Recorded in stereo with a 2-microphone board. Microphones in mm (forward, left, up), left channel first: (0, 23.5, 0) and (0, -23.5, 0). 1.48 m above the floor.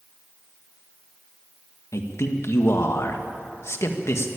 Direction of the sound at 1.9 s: 70° left (ahead or behind).